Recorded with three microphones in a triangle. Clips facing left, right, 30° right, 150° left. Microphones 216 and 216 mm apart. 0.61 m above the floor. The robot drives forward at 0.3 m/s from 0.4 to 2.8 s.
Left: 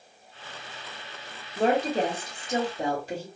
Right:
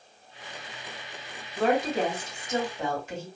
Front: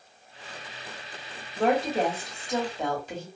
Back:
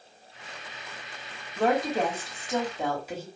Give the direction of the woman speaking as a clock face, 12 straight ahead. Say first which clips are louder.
Left 1 dB, front 1 dB; 10 o'clock.